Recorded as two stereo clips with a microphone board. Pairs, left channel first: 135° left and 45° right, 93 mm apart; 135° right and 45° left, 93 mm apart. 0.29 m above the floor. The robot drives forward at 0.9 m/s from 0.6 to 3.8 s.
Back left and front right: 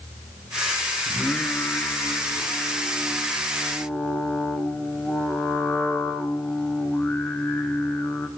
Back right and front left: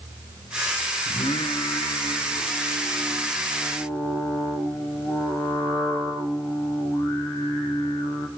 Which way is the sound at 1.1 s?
150° right.